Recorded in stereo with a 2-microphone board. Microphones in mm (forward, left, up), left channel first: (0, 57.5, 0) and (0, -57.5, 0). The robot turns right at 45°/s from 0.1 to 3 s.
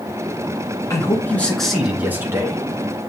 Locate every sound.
0.9 s a man speaking: 145° left, 1.9 m; by 2.6 s 140° right, 1.9 m